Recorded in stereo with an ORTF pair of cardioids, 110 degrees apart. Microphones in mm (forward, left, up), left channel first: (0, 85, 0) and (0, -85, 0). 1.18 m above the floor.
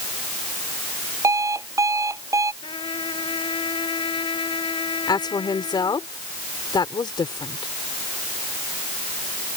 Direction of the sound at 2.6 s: 30° left.